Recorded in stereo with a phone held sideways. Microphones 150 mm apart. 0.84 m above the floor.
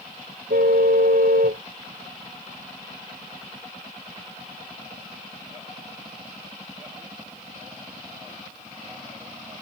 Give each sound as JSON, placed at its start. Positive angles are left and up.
{"t": 0.5, "sound": "a car horn", "side_deg": -80}